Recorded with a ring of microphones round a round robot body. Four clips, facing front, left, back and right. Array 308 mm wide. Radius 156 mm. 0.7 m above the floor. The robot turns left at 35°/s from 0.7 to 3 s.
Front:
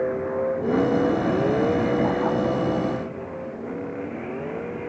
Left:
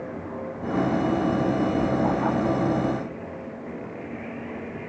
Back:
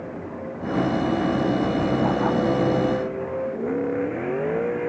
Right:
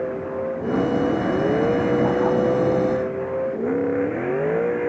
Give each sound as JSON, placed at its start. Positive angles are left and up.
{"t": 0.0, "sound": "a vehicle", "azimuth_deg": -30}